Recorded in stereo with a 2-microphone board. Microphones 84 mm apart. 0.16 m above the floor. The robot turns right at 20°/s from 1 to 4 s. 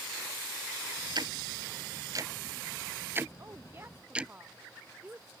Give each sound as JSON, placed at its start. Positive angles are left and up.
{"t": 1.1, "sound": "ticking", "side_deg": -60}
{"t": 3.4, "sound": "a woman speaking", "side_deg": -35}